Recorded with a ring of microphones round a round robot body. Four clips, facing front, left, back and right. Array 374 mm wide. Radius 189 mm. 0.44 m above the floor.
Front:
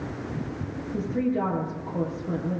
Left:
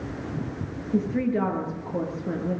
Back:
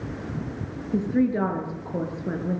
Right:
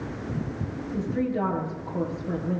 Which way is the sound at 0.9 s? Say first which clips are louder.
Left 3 dB, back 4 dB; 145° left.